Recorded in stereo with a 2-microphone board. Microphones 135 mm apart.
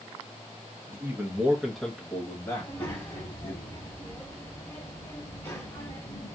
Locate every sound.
0.9 s a man speaking: 20° right (ahead or behind), 1.3 m; by 3.5 s 40° left (ahead or behind), 1.6 m
2.5 s a child speaking: 15° left (ahead or behind), 3 m